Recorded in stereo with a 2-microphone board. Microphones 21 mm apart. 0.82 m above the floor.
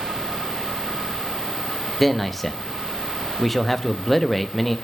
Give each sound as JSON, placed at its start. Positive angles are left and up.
{"t": 2.0, "sound": "a man speaking", "side_deg": 5, "distance_m": 0.9}